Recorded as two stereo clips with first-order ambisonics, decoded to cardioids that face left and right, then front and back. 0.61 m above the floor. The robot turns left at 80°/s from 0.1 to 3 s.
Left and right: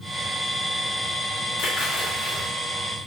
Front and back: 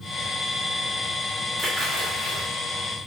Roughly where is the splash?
Left.